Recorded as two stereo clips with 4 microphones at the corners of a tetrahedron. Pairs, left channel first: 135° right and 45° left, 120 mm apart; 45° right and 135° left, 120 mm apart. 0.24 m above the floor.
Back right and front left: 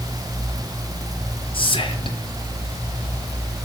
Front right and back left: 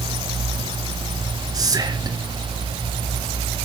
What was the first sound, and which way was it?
Whispering, 170° right.